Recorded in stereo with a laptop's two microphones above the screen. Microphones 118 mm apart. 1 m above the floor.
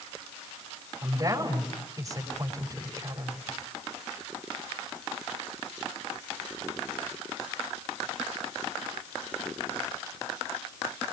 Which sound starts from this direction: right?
A woman speaking, at 1.0 s.